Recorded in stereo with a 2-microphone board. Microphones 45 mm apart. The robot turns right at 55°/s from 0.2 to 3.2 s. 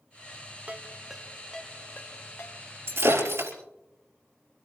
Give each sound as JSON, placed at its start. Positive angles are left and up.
{"t": 0.7, "sound": "a ringtone", "side_deg": -35, "distance_m": 1.2}
{"t": 2.9, "sound": "breaking glass", "side_deg": -65, "distance_m": 4.5}